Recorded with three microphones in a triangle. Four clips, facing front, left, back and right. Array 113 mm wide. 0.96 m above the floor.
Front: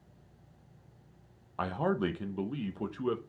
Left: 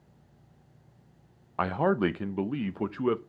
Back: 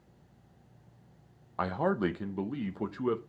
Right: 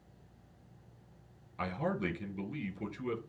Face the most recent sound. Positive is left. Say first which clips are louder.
# left 10 dB, back 2 dB
turn(degrees=100)